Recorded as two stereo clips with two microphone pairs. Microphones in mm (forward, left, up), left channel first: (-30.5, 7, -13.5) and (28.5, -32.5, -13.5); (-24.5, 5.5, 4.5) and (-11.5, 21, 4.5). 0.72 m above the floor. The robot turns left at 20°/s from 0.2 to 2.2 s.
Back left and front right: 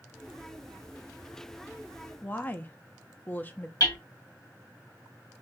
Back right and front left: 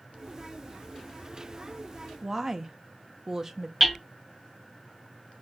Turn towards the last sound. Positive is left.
turn(degrees=125)